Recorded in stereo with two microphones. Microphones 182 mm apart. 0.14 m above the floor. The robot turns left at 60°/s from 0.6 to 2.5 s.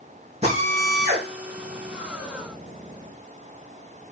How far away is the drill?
About 5 m.